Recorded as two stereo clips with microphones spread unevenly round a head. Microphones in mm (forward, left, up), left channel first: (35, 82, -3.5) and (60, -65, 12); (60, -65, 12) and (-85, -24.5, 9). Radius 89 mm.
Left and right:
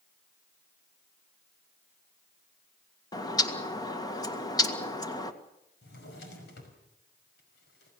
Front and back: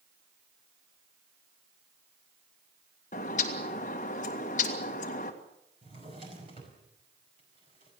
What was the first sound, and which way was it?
A bird, 35° left.